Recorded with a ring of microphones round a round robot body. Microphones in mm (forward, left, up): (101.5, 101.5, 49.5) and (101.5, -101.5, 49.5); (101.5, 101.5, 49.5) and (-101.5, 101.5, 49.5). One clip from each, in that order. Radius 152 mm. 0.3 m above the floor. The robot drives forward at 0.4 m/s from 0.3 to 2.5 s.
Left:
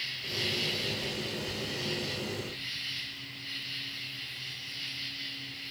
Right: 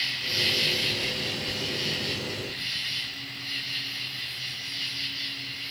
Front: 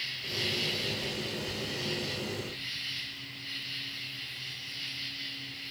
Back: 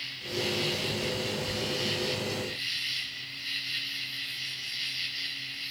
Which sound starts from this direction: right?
An insect, at 0.0 s.